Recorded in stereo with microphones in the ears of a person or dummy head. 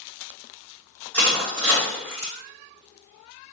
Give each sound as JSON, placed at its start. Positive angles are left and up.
{"t": 1.1, "sound": "crushing", "side_deg": 10, "distance_m": 1.5}